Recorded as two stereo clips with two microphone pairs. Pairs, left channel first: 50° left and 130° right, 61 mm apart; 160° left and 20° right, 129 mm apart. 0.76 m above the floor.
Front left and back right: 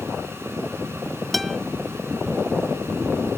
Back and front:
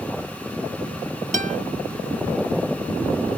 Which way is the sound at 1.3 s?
40° right.